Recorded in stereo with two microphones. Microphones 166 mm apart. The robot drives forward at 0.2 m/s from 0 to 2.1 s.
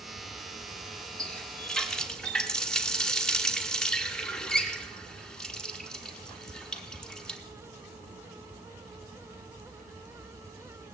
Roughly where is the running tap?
Centre.